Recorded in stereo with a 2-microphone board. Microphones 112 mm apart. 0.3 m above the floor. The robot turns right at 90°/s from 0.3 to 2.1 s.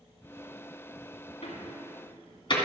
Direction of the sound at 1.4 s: 55° left (ahead or behind).